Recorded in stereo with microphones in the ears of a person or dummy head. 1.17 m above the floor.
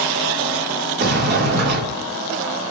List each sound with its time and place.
1.0 s a sliding door: 65° right (ahead or behind), 2.0 m